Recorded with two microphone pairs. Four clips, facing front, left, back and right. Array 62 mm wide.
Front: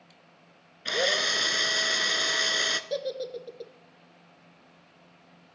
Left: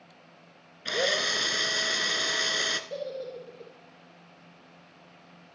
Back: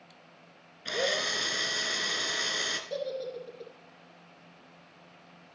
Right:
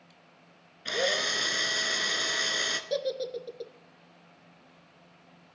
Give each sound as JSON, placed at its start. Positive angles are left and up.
{"t": 0.8, "sound": "a drill", "azimuth_deg": 20, "distance_m": 0.8}
{"t": 2.9, "sound": "a giggle", "azimuth_deg": -50, "distance_m": 1.1}